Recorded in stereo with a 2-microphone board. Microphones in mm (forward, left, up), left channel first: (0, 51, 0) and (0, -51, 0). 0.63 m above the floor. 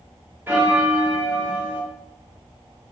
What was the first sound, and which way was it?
A bell, 20° right (ahead or behind).